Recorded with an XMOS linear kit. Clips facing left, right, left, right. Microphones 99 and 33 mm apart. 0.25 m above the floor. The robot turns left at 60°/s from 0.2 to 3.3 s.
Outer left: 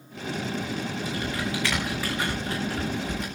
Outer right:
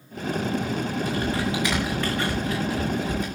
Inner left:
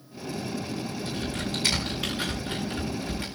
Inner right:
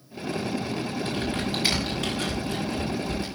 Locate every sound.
1.1 s typing on a keyboard: 55° right (ahead or behind), 6.5 m; by 3.3 s 80° left, 6.5 m